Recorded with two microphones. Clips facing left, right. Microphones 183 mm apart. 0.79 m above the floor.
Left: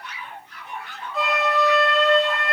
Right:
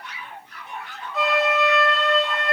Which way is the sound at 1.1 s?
Centre (ahead or behind).